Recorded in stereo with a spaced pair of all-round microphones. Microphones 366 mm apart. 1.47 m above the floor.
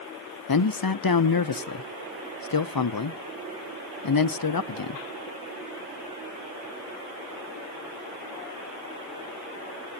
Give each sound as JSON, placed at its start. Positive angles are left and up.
{"t": 0.5, "sound": "a man speaking", "side_deg": 65, "distance_m": 0.6}